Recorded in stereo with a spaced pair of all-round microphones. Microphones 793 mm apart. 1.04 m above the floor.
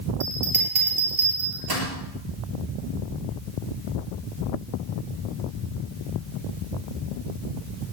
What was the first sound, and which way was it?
A bell, 30° right (ahead or behind).